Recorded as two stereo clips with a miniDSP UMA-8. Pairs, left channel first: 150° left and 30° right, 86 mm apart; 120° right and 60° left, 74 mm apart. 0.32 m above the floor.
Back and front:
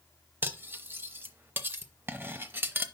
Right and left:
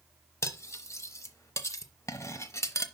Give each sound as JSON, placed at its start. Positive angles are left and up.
{"t": 0.4, "sound": "cutlery clinking", "azimuth_deg": -90, "distance_m": 0.6}